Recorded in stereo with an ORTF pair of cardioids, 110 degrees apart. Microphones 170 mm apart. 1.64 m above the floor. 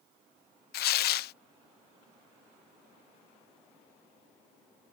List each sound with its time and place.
0.7 s tearing paper: 70° left